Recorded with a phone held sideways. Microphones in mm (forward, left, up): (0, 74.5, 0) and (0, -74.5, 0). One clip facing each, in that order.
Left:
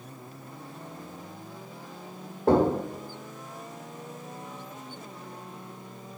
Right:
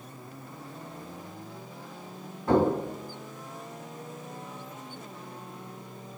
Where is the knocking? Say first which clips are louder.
Left 2 dB; 65° left (ahead or behind), 2 m.